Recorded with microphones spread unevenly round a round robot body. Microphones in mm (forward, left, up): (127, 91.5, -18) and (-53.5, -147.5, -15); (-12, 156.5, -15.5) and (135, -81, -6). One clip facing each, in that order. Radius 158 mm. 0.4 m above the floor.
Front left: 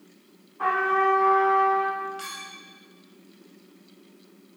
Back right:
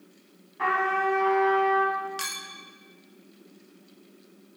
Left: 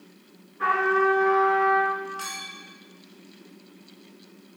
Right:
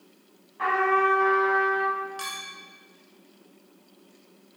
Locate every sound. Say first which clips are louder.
0.6 s a trumpet: front left 3 dB, left 2 dB; 85° right, 2.5 m
2.2 s a clink: front left 1 dB, left 1 dB; 125° right, 0.7 m